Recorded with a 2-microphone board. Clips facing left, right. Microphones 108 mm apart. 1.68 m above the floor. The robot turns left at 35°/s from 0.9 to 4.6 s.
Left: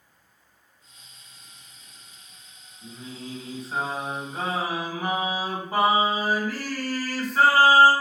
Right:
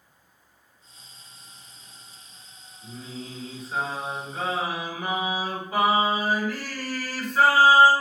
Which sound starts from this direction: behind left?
Singing, at 2.8 s.